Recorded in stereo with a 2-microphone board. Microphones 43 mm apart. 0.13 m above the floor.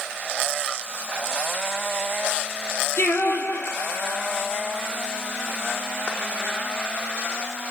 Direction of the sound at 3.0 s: 65° left (ahead or behind).